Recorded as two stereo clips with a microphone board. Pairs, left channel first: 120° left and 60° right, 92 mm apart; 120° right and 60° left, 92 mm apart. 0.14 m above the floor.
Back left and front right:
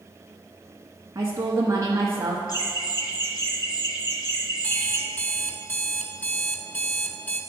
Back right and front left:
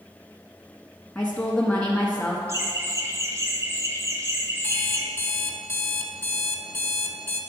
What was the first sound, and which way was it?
A woman speaking, 55° right.